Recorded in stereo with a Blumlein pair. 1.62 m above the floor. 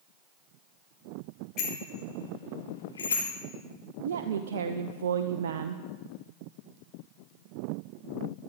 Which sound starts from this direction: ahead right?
A woman speaking, at 4.0 s.